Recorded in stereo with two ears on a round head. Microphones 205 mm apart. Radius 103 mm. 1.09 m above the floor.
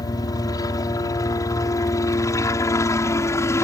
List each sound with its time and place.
0.0 s a helicopter: 15° left (ahead or behind)